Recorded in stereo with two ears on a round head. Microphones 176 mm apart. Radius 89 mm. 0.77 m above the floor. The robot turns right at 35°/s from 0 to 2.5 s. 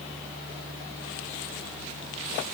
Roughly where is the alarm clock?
I don't hear an alarm clock.